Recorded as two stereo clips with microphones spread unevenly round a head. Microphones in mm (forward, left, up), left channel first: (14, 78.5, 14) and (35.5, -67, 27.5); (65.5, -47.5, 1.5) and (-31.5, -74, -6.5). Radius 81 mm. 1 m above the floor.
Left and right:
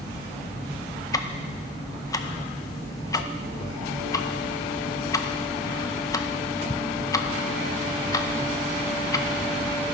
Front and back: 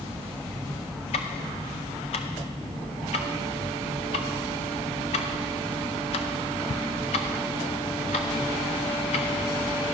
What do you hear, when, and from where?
1.1 s ticking: 40° left, 0.6 m